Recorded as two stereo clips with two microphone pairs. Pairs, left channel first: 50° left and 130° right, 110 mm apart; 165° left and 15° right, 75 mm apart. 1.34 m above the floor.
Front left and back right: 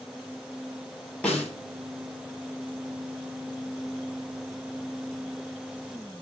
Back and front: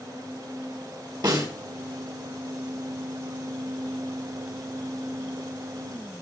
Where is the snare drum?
30° right, 7 m.